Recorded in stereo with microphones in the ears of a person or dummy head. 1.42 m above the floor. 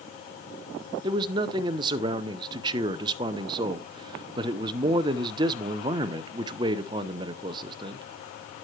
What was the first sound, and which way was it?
A man speaking, 25° right (ahead or behind).